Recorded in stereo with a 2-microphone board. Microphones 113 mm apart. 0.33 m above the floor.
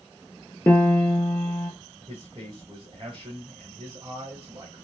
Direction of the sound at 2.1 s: 40° right (ahead or behind).